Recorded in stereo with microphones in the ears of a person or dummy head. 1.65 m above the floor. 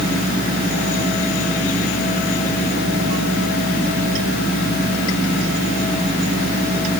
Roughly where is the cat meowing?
I don't hear a cat meowing.